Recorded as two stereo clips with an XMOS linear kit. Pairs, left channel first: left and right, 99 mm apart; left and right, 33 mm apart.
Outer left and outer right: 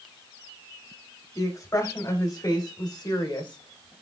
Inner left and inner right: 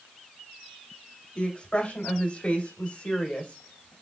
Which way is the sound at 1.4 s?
35° left (ahead or behind).